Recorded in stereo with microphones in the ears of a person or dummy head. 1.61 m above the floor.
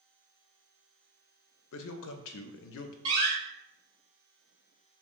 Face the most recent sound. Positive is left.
turn(degrees=-25)  # may be behind; listen again after turning